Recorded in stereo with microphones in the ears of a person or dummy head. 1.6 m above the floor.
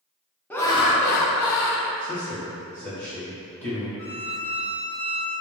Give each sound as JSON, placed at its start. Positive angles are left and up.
{"t": 0.5, "sound": "laughter", "side_deg": 10, "distance_m": 0.8}
{"t": 2.0, "sound": "a man speaking", "side_deg": 10, "distance_m": 1.6}
{"t": 4.0, "sound": "a violin", "side_deg": 15, "distance_m": 0.7}